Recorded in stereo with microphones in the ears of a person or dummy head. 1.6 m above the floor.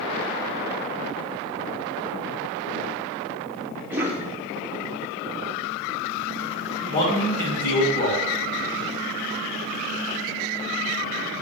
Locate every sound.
3.9 s a cough: 5° right (ahead or behind), 2 m
6.9 s a man speaking: 30° left (ahead or behind), 2.5 m